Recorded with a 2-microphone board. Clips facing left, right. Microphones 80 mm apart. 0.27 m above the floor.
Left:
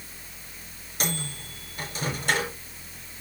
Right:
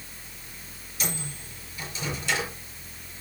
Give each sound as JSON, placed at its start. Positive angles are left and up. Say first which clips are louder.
{"t": 1.0, "sound": "a microwave", "louder": "left 3 dB", "side_deg": 55, "distance_m": 4.5}